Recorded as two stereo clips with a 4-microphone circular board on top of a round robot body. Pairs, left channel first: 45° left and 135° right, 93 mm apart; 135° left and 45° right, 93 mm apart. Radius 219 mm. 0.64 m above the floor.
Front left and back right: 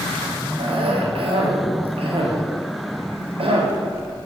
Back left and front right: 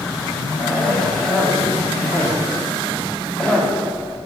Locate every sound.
0.6 s a cough: 145° right, 1.7 m